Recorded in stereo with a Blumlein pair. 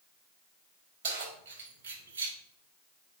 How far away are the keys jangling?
About 4 m.